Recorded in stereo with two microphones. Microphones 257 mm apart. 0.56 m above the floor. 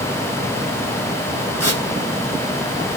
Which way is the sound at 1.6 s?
80° left.